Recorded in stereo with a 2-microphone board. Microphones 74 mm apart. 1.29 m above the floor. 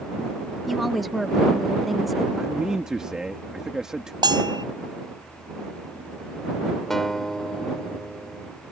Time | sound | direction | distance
0.7 | a woman speaking | centre (ahead or behind) | ?
2.4 | a man speaking | 10° right (ahead or behind) | ?
4.2 | a bell | 85° right | ?
6.9 | a guitar | 5° left (ahead or behind) | ?